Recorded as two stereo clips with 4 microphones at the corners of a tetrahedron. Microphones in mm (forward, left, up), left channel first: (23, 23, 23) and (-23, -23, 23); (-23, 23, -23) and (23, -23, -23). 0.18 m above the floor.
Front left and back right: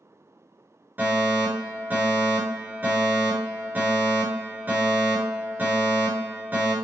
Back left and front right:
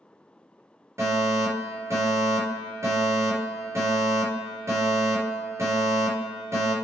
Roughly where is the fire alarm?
Right.